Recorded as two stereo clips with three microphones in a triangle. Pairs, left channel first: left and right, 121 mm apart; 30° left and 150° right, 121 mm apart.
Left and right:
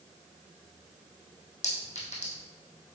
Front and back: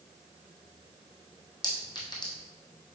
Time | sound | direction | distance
1.6 | a clink | 80° left | 2.5 m